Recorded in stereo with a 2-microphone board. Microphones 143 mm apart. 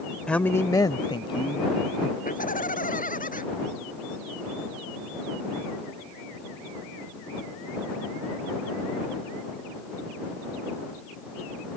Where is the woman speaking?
5° left (ahead or behind); by 2.1 s 40° left (ahead or behind).